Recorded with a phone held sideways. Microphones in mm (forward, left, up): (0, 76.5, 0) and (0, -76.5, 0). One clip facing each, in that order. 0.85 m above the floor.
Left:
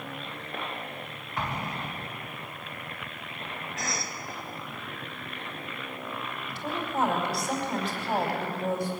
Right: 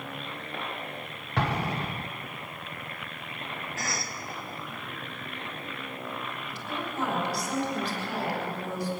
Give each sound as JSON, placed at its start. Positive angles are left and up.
{"t": 1.4, "sound": "an explosion", "side_deg": -70, "distance_m": 1.0}
{"t": 3.8, "sound": "a cough", "side_deg": -5, "distance_m": 0.9}
{"t": 6.5, "sound": "a woman speaking", "side_deg": 55, "distance_m": 4.5}